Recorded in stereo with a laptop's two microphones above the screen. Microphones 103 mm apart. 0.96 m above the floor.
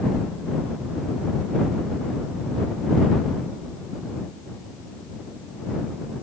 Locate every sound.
Only background noise.